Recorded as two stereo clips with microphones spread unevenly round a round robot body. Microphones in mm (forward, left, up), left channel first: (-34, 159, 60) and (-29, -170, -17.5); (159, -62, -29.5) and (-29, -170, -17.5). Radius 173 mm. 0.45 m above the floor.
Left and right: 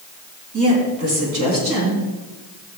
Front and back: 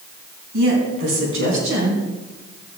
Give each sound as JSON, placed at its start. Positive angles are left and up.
{"t": 0.5, "sound": "a woman speaking", "azimuth_deg": -130, "distance_m": 3.0}